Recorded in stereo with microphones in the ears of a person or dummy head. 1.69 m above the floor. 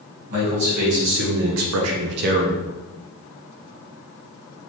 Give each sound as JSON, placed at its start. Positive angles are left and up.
{"t": 0.3, "sound": "a man speaking", "side_deg": -50, "distance_m": 1.6}